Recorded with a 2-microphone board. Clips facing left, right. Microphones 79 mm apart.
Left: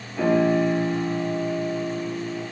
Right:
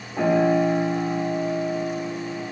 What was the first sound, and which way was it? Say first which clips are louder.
A piano: right 1 dB; 25° right (ahead or behind).